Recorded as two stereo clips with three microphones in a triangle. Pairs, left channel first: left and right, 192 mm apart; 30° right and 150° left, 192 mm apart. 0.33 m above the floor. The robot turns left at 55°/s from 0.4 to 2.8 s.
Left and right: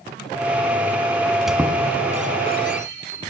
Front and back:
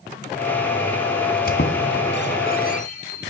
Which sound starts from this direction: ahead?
A squeak, at 1.5 s.